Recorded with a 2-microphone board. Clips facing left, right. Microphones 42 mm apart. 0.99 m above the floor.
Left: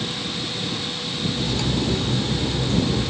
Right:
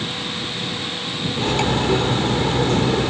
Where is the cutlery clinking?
55° right (ahead or behind).